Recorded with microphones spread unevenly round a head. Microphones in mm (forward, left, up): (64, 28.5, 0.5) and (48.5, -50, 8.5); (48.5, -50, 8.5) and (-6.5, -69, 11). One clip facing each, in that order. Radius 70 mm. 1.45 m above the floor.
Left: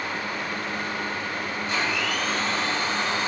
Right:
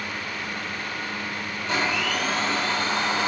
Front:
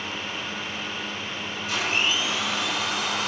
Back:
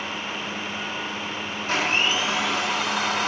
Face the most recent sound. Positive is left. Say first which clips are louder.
# right 3 dB, back 3 dB
turn(degrees=-115)